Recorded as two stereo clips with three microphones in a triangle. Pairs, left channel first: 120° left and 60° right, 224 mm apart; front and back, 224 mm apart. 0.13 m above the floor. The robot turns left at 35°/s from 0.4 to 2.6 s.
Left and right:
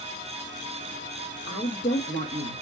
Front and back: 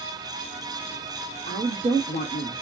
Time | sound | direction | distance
1.5 | a woman speaking | 150° left | 2.5 m